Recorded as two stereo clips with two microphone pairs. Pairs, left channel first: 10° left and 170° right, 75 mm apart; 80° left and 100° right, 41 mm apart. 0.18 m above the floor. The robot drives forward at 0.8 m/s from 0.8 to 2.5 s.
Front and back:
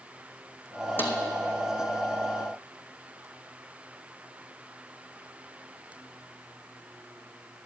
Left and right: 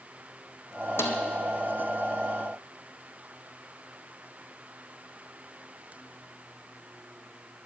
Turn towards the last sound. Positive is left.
turn(degrees=110)